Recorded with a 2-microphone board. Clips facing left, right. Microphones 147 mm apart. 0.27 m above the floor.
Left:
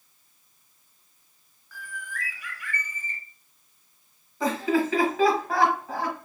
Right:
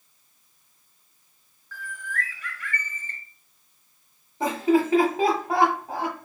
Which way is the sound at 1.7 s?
10° left (ahead or behind).